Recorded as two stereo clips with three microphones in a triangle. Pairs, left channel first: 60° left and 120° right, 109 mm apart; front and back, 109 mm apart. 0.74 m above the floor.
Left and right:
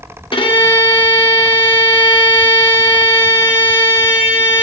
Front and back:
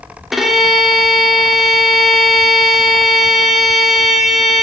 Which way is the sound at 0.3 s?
95° left.